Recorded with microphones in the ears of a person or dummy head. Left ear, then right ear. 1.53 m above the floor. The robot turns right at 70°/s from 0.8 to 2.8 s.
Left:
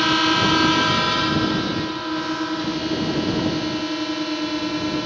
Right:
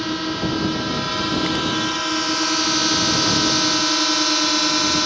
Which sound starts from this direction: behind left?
A drone, at 0.0 s.